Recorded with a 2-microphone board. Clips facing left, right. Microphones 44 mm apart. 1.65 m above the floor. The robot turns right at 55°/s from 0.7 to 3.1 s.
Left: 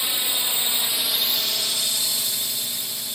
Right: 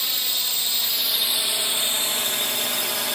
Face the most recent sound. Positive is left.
turn(degrees=-75)  # may be behind; listen again after turning